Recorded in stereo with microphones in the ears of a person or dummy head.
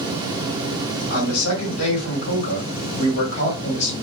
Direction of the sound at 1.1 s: 80° left.